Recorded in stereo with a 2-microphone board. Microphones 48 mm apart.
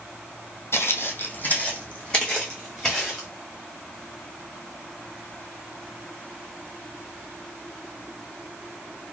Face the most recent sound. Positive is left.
turn(degrees=10)  # may be behind; listen again after turning